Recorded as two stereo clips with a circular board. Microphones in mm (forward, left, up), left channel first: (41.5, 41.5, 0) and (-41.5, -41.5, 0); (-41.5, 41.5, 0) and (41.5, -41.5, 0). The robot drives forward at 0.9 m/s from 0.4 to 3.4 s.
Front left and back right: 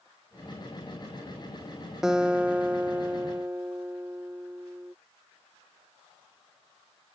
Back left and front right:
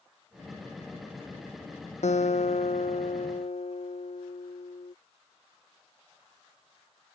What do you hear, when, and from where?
2.0 s a guitar: 140° left; by 5.0 s 155° left